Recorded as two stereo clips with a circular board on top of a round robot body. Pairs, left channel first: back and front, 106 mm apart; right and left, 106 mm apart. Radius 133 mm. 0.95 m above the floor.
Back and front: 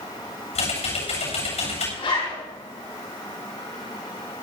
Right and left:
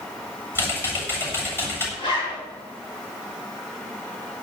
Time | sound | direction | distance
0.6 | typing on a keyboard | 160° right | 7.5 m
2.0 | a zipper | 140° right | 7 m